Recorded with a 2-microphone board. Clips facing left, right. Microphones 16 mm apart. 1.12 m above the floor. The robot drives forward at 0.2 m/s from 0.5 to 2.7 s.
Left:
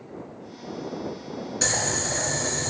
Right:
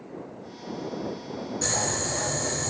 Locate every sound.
1.6 s boiling: 65° left (ahead or behind), 1.8 m